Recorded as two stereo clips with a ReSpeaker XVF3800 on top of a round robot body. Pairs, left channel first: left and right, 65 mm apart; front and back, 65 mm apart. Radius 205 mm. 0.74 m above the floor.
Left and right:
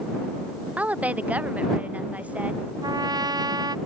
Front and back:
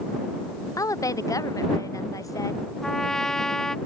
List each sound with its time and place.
0.8 s a woman speaking: 25° right
2.8 s a trumpet: 85° right